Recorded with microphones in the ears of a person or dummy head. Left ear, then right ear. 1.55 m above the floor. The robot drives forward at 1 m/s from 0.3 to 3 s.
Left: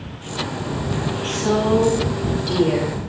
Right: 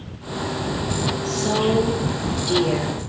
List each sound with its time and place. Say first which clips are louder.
1.2 s a woman speaking: left 3 dB; 25° left (ahead or behind), 4 m; by 3.0 s 20° left (ahead or behind), 5.5 m